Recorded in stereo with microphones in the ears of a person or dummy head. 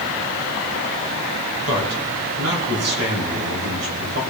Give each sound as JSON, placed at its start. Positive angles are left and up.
{"t": 1.7, "sound": "a man speaking", "side_deg": -80, "distance_m": 3.0}